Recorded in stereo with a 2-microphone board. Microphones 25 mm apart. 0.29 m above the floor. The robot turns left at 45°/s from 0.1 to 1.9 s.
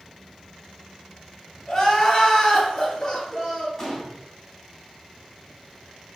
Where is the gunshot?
10° left (ahead or behind), 2.5 m.